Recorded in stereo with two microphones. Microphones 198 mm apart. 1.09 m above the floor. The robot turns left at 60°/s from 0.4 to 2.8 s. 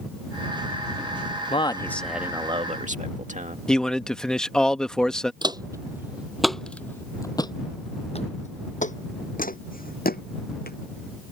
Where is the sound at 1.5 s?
35° left; by 3.6 s 45° right.